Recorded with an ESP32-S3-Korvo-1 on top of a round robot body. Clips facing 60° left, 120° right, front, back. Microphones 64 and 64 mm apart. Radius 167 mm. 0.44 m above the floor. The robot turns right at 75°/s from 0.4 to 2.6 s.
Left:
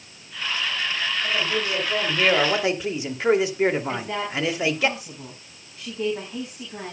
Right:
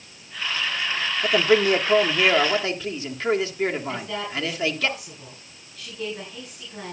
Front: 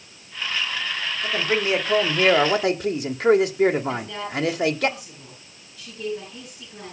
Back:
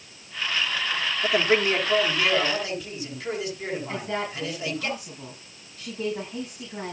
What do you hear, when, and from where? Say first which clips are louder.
1.2 s a man speaking: right 10 dB, back 2 dB; 115° right, 2.5 m; by 4.9 s 15° right, 2.5 m
3.9 s a woman speaking: left 2 dB, front 1 dB; 125° left, 5.5 m